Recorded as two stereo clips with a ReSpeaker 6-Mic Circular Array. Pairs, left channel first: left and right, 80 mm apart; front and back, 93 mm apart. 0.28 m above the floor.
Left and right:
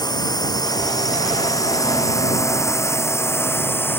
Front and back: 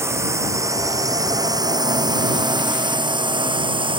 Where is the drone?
120° left; by 4.0 s 155° left.